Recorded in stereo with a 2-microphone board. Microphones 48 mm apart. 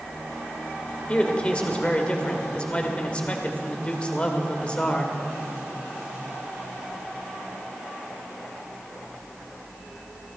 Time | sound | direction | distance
1.1 | a man speaking | 25° left (ahead or behind) | 1.5 m